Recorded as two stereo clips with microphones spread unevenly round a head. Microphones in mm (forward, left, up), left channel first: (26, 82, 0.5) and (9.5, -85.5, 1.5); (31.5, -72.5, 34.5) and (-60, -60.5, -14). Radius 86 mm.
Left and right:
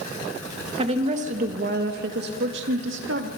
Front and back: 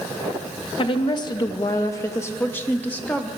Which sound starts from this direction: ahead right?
A woman speaking, at 0.8 s.